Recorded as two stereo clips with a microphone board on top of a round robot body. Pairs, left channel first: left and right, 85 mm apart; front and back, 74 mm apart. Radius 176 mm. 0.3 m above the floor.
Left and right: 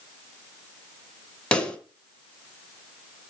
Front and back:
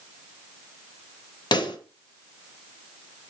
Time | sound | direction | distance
1.5 | a pop | 15° left | 2.5 m